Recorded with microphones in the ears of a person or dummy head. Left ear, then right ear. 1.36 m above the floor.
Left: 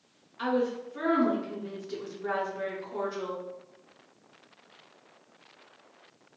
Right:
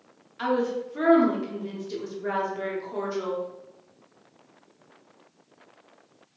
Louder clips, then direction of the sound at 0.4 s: Right 3 dB; 10° right (ahead or behind).